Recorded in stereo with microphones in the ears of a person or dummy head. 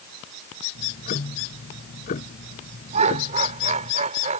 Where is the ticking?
50° left (ahead or behind).